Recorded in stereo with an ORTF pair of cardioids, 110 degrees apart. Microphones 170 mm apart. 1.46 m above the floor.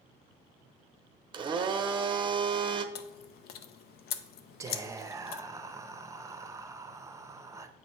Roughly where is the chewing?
Left.